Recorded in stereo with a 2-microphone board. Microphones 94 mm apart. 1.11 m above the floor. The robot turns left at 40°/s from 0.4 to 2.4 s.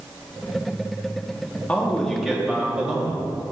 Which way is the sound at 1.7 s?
20° left (ahead or behind).